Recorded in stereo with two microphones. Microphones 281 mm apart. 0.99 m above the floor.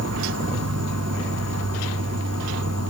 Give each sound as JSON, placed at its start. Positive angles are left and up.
{"t": 0.0, "sound": "an insect", "side_deg": -60, "distance_m": 0.8}